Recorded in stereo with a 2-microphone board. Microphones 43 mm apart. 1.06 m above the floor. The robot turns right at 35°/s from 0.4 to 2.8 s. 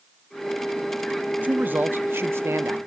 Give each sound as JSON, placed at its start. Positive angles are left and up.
{"t": 1.4, "sound": "a man speaking", "azimuth_deg": -140, "distance_m": 0.7}